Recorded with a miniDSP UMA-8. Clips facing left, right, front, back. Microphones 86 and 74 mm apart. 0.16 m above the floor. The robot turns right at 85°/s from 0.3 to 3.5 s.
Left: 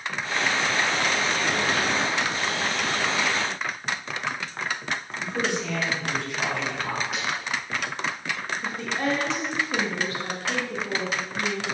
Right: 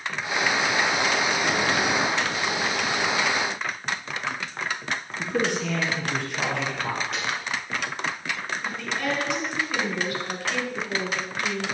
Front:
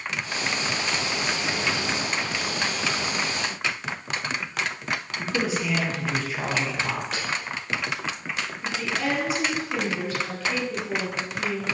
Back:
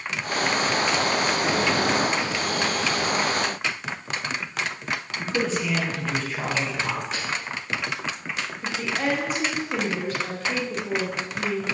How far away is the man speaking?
About 2.5 m.